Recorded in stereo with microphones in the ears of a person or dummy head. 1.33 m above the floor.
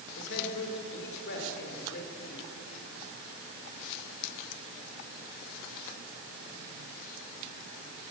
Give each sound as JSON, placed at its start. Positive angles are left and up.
{"t": 0.2, "sound": "a man speaking", "side_deg": 65, "distance_m": 4.5}